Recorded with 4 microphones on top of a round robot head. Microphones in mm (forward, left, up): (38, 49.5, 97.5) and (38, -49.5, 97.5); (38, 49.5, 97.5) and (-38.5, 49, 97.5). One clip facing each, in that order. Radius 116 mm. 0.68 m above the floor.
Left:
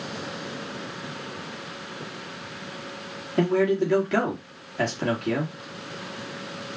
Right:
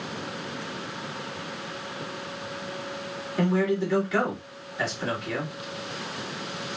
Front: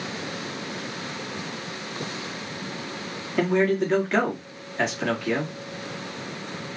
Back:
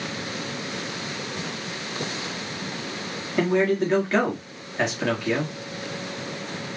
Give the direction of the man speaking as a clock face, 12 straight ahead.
9 o'clock.